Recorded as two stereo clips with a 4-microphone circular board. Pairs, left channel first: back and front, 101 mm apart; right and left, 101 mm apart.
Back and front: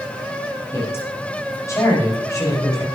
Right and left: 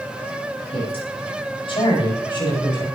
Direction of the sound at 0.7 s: 115° right.